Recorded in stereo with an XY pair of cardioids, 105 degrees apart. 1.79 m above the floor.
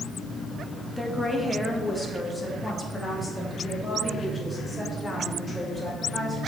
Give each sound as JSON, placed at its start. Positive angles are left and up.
{"t": 1.0, "sound": "a woman speaking", "azimuth_deg": 0, "distance_m": 1.7}